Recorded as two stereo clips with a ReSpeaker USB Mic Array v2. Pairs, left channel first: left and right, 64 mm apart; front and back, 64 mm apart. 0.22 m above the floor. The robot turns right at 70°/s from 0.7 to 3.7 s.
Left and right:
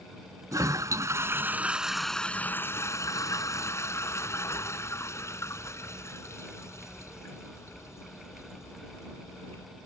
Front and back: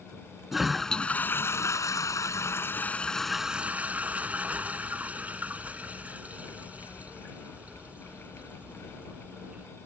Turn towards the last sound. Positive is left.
turn(degrees=120)